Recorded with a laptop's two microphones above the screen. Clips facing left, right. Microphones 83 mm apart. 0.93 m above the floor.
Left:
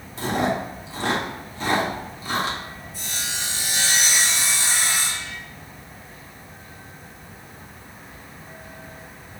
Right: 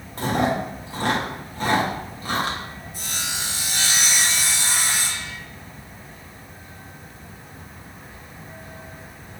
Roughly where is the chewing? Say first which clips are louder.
Right 1 dB; right.